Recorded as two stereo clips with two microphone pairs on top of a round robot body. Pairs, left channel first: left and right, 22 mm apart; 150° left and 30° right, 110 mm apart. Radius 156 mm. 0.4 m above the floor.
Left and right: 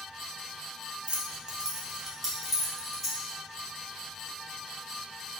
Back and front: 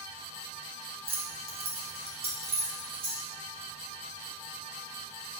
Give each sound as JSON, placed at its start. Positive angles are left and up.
{"t": 1.1, "sound": "keys jangling", "azimuth_deg": -50, "distance_m": 0.7}